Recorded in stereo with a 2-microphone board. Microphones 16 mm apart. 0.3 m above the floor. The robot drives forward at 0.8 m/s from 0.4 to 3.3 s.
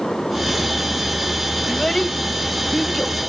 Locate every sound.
1.7 s a child speaking: 35° left (ahead or behind), 1.0 m; by 3.2 s 20° left (ahead or behind), 1.8 m